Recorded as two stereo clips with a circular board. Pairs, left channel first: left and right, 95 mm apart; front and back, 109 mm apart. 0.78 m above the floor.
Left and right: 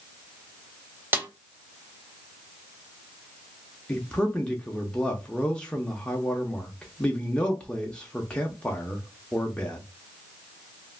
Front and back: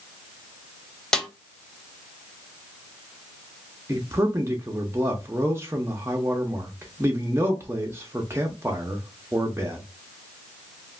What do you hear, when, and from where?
1.1 s a snare drum: 70° right, 0.6 m
3.9 s a man speaking: 155° left, 0.6 m